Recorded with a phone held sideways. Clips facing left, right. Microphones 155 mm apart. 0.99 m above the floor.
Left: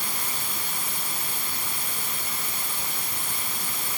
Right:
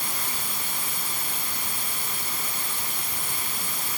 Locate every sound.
Only background noise.